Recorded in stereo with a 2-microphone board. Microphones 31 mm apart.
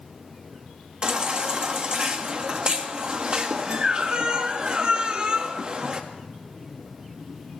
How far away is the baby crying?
About 1.3 m.